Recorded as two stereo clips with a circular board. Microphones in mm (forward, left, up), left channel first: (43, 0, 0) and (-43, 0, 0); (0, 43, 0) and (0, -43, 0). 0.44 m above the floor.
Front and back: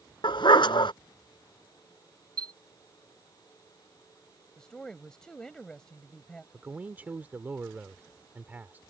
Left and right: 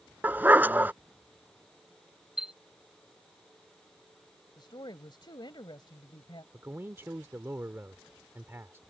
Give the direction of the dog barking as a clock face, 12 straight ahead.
1 o'clock.